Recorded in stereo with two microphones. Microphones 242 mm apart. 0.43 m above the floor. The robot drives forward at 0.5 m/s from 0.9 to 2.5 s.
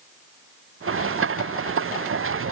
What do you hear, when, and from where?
Only background noise.